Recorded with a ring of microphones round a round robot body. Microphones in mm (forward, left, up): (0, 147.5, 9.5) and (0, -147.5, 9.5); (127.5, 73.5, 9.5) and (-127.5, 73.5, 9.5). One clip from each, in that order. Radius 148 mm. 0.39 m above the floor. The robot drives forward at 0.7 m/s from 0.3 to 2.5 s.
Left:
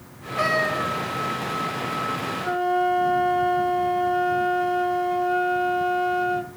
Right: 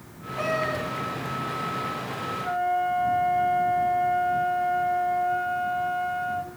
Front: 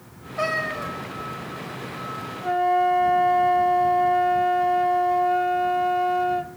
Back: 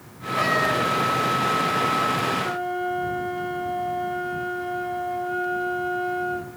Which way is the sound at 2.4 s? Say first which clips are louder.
Left 3 dB, front 6 dB; 45° left.